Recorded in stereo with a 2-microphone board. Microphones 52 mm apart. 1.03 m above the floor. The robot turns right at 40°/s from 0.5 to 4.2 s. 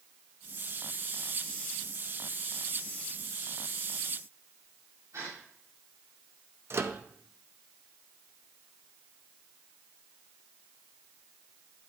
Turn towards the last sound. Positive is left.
turn(degrees=-55)  # may be behind; listen again after turning